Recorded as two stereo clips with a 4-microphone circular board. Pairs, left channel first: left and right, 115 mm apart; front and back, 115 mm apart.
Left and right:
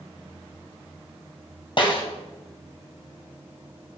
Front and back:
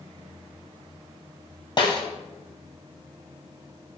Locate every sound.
1.8 s a snare drum: 50° left, 1.6 m